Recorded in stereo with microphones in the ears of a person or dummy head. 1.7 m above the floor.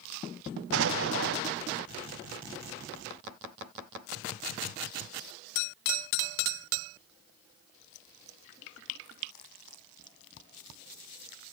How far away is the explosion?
About 1.2 m.